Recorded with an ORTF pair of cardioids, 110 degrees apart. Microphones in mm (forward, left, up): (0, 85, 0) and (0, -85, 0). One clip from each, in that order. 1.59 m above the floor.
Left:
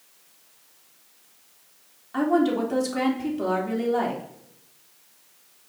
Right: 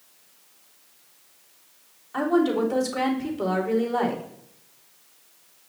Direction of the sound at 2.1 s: 25° left.